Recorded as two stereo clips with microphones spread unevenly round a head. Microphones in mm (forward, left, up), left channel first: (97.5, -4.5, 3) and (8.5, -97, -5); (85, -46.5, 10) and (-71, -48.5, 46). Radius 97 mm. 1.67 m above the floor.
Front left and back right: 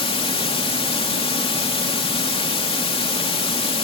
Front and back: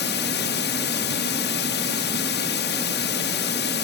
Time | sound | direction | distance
0.0 | running water | 5° left | ?